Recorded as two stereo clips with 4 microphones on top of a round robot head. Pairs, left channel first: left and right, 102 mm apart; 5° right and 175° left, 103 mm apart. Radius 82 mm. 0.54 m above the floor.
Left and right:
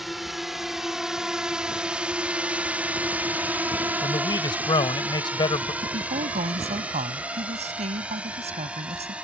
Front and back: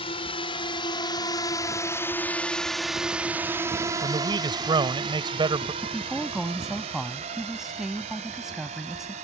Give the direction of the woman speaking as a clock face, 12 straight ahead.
3 o'clock.